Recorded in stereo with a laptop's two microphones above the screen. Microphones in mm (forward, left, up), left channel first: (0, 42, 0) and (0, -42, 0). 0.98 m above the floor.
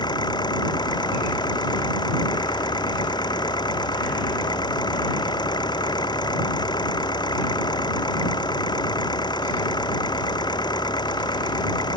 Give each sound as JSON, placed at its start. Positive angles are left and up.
{"t": 0.0, "sound": "an engine running", "side_deg": 60}